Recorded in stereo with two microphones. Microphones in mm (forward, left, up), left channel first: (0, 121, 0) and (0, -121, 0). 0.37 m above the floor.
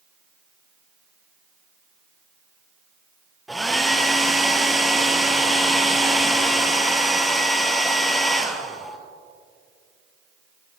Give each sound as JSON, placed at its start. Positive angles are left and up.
{"t": 3.5, "sound": "a hair dryer", "side_deg": 0, "distance_m": 1.5}